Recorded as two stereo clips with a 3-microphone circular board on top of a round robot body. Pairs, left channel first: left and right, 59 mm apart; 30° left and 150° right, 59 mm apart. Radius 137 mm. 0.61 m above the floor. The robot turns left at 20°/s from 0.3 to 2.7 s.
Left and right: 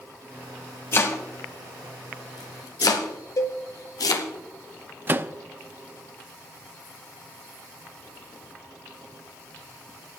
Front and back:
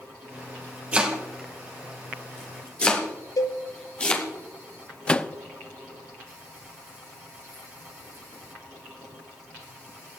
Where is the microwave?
40° right, 0.7 m.